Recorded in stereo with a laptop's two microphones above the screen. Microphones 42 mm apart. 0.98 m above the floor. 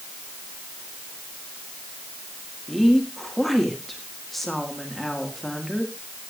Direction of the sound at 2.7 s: 5° left (ahead or behind).